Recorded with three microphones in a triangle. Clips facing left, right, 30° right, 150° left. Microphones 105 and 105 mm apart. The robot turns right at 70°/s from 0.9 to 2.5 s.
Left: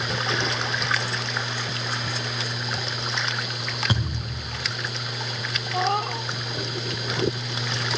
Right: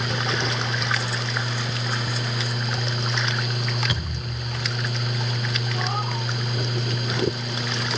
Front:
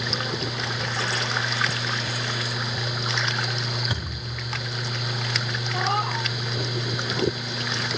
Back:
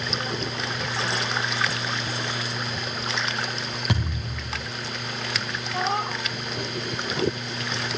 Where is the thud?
150° left, 9 m.